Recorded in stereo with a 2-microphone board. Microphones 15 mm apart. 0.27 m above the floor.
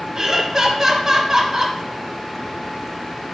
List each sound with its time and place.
0.1 s laughter: 30° right (ahead or behind), 1.5 m